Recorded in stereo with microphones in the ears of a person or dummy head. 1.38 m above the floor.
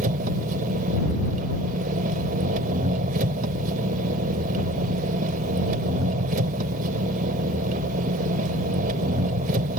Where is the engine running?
40° right (ahead or behind).